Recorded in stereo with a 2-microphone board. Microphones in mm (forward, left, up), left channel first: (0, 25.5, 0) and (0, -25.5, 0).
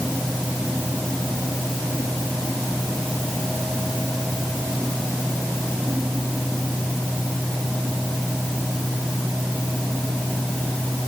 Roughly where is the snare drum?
I don't hear a snare drum.